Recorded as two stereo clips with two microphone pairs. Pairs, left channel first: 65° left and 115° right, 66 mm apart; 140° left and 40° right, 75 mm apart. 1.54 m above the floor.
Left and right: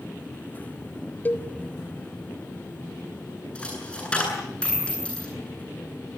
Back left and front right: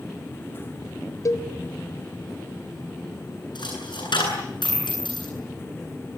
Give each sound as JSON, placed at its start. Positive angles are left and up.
{"t": 1.2, "sound": "a cowbell", "azimuth_deg": 115, "distance_m": 1.4}
{"t": 3.5, "sound": "a dropped coin", "azimuth_deg": 140, "distance_m": 9.5}